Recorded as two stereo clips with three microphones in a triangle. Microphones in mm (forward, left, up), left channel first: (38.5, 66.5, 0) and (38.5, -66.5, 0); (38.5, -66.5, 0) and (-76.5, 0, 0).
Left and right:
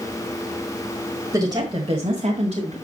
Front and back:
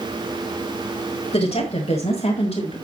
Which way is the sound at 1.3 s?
35° right.